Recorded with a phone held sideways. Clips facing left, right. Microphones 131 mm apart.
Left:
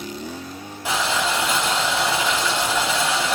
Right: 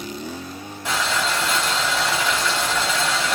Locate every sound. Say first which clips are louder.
0.8 s boiling: left 1 dB; 5° left (ahead or behind), 6 m